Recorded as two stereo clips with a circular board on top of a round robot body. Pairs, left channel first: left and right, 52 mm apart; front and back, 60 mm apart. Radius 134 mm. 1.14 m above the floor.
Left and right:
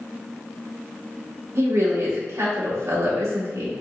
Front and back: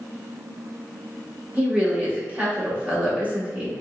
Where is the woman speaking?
115° right, 1.4 m.